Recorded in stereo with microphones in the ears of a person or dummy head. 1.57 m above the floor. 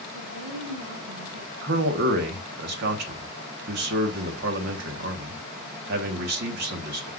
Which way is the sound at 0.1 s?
85° right.